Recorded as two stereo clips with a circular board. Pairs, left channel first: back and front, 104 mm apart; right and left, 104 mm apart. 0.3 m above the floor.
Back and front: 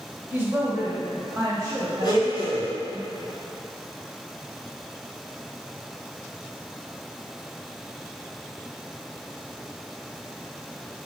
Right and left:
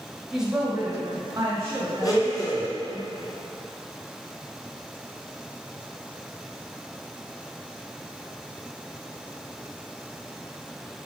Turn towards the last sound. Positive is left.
turn(degrees=-140)